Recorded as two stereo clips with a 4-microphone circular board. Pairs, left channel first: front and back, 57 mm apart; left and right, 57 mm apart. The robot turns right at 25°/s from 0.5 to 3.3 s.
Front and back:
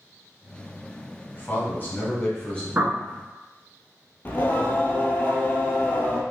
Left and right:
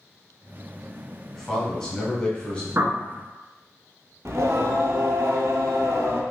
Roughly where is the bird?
Behind right.